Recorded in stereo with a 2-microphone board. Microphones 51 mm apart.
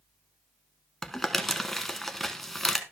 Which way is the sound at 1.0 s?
5° left (ahead or behind).